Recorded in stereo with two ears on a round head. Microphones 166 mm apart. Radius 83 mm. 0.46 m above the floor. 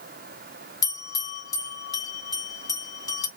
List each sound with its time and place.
0.8 s a bell: 20° left (ahead or behind), 1.1 m